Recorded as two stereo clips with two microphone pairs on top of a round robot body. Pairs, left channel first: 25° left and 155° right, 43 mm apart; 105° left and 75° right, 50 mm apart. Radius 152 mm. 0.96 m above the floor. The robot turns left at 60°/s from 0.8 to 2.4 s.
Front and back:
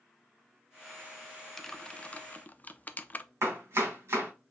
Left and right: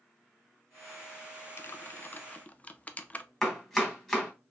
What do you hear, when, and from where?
1.6 s typing on a keyboard: 95° left, 0.6 m; by 3.2 s 45° left, 0.6 m
3.4 s chopping: 175° right, 1.4 m